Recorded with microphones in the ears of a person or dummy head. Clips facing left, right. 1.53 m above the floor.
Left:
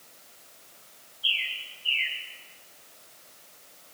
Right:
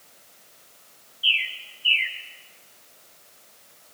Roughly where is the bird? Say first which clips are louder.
Right 5 dB; right.